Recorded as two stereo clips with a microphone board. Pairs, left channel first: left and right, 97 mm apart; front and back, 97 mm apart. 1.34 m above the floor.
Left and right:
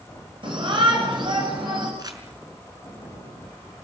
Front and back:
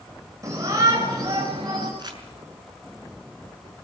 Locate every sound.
0.4 s a shout: 125° right, 6 m; by 1.9 s 130° right, 7.5 m
2.0 s crumpling: 135° right, 5 m